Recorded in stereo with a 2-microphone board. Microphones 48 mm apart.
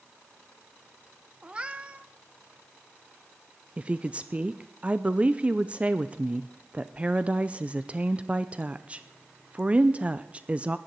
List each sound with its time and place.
1.4 s a cat meowing: 20° right (ahead or behind), 0.7 m
3.8 s a woman speaking: 30° right (ahead or behind), 0.6 m